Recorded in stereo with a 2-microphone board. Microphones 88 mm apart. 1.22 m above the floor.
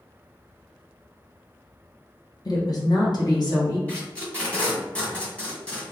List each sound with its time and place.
2.5 s a woman speaking: 45° left (ahead or behind), 0.9 m; by 3.8 s 55° left (ahead or behind), 1.9 m
3.9 s tape being pulled: 15° left (ahead or behind), 1.6 m